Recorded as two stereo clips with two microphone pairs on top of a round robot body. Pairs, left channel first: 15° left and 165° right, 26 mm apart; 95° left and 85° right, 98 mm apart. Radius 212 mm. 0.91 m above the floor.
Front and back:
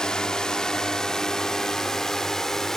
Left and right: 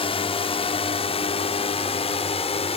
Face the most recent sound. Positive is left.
turn(degrees=85)